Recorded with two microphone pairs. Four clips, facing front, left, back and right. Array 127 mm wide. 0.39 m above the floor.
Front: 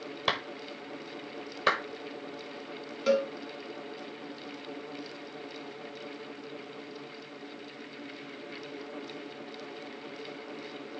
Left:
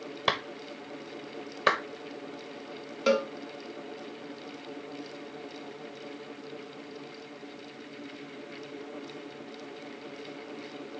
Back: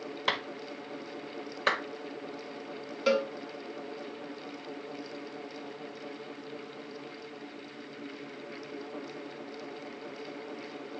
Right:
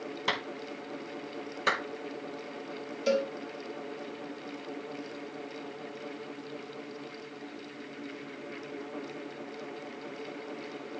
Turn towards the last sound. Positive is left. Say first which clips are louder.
# left 2 dB, front 1 dB
turn(degrees=100)